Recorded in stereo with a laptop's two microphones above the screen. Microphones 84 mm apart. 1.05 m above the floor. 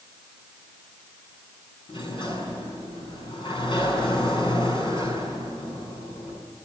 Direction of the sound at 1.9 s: 75° left (ahead or behind).